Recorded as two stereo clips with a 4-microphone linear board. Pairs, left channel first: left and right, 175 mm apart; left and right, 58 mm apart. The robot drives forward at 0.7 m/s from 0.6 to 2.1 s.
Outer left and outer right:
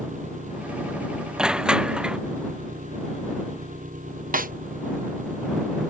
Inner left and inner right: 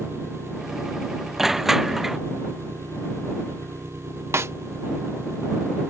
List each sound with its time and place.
0.0 s an engine running: 50° right (ahead or behind)
1.4 s crushing: 5° right (ahead or behind)
4.3 s a snare drum: 55° right (ahead or behind)